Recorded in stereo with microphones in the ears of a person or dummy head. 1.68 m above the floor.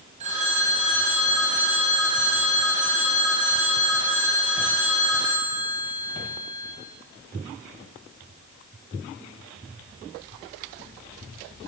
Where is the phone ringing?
40° right (ahead or behind), 9 m.